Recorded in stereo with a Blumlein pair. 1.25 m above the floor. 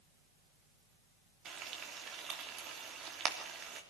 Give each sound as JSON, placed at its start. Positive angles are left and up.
{"t": 1.4, "sound": "frying", "azimuth_deg": -25, "distance_m": 3.0}